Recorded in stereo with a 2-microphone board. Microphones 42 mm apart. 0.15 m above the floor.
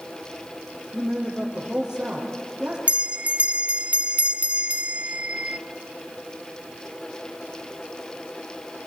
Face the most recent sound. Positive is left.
turn(degrees=-35)  # may be behind; listen again after turning